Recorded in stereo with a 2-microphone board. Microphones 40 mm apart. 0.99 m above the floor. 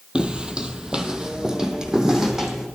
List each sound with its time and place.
0.1 s footsteps: 25° right (ahead or behind), 1.1 m; by 2.7 s 10° right (ahead or behind), 2 m